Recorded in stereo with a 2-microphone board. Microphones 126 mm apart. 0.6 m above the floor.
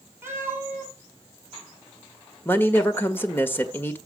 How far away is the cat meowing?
About 6 m.